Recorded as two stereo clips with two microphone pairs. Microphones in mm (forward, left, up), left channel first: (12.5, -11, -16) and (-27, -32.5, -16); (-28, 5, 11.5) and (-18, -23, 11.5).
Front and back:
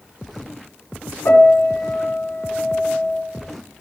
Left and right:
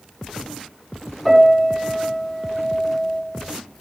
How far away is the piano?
About 7 m.